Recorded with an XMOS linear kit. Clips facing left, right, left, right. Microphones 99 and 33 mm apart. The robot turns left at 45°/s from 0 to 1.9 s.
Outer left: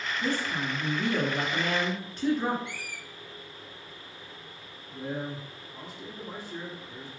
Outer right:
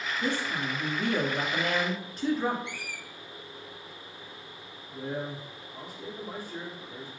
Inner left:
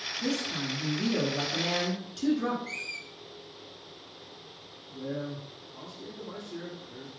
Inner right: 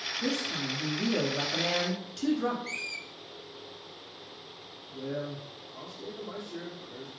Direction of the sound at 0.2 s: 20° right (ahead or behind).